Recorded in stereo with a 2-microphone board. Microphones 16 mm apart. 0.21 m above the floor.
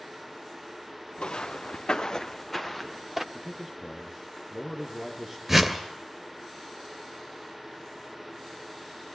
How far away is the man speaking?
About 4.5 m.